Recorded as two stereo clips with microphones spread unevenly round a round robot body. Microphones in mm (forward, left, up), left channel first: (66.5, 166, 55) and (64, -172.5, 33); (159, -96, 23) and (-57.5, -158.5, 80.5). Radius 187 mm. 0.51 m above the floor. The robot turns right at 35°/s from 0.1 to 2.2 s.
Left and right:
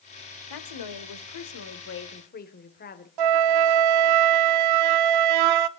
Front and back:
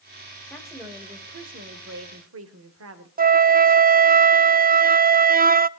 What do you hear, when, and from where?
0.5 s a woman speaking: 95° left, 1.9 m; by 3.1 s 155° left, 1.9 m
3.2 s a flute: 105° right, 0.7 m